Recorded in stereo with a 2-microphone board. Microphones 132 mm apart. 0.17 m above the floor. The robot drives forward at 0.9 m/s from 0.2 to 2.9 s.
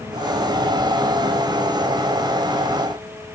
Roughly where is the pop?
No pop in this recording.